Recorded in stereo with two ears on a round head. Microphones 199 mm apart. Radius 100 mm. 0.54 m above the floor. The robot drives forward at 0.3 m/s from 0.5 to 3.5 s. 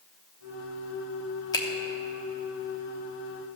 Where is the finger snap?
20° left (ahead or behind), 1.1 m.